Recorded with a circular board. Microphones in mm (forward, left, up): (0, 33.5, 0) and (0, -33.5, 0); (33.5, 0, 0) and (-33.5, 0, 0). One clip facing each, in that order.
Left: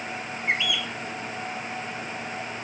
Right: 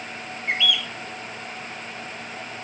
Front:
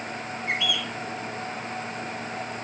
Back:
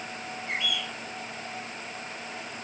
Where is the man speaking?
No man speaking in this recording.